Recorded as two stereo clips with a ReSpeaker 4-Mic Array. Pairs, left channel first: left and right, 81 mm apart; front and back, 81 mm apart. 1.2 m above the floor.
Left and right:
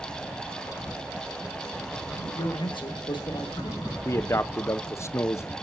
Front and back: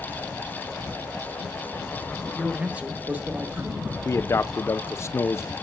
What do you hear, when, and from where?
2.4 s a man speaking: 100° left, 1.1 m; by 3.9 s 115° left, 2.0 m
4.0 s a man speaking: 45° left, 0.5 m